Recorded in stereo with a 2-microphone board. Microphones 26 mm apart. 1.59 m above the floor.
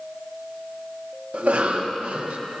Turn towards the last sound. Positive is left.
turn(degrees=-65)  # may be behind; listen again after turning